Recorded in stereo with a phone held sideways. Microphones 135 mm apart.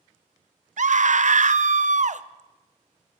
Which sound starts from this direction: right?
A scream, at 0.8 s.